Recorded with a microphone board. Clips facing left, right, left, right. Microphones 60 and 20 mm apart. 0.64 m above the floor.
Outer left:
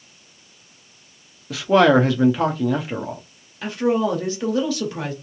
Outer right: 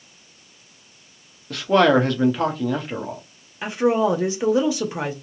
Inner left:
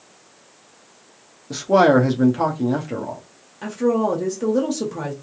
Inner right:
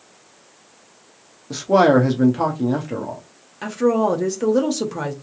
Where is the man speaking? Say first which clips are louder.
Outer left 2 dB, even; 5° left (ahead or behind), 0.5 m.